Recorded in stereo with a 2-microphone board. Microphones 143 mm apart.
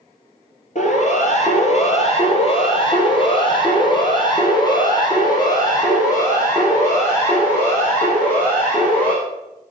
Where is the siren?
60° left (ahead or behind), 3.5 m; by 9.1 s 15° left (ahead or behind), 7.5 m.